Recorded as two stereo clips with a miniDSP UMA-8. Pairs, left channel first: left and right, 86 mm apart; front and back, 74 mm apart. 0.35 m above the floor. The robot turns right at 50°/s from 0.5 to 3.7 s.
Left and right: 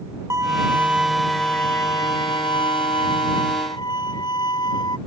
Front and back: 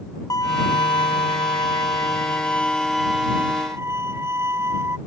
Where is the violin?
35° right; by 5.0 s 125° left.